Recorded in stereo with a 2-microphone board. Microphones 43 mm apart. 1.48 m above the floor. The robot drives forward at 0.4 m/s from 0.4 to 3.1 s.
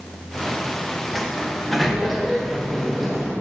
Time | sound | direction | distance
1.1 | a sliding door | centre (ahead or behind) | 0.6 m